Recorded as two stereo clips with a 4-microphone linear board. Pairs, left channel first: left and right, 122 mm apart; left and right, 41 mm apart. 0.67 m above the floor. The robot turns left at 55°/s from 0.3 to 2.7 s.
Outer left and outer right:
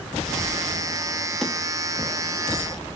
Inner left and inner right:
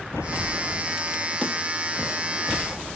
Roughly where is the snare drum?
Centre.